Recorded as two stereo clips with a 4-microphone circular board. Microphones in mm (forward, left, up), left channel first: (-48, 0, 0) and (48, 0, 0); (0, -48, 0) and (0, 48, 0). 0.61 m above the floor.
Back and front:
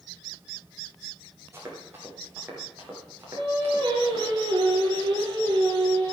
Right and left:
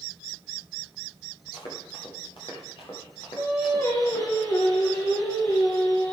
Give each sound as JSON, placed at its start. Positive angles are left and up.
{"t": 1.5, "sound": "running footsteps", "azimuth_deg": -65, "distance_m": 7.5}
{"t": 3.4, "sound": "singing", "azimuth_deg": -40, "distance_m": 9.5}